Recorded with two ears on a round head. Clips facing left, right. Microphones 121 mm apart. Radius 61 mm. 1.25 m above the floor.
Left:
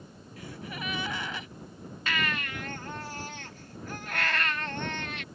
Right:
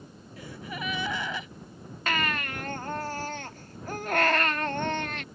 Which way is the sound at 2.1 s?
40° right (ahead or behind).